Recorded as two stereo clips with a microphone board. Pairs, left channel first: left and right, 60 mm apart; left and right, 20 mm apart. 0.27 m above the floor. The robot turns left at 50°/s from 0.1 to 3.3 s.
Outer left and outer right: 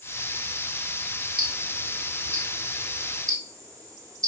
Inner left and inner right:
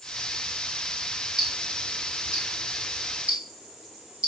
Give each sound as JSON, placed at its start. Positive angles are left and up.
{"t": 1.4, "sound": "ticking", "side_deg": -10, "distance_m": 1.0}